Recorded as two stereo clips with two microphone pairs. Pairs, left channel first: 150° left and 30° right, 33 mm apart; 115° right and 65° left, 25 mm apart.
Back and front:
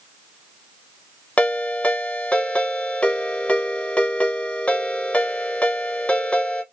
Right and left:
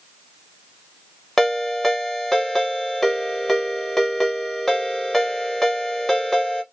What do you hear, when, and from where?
1.4 s a ringtone: 160° left, 1.0 m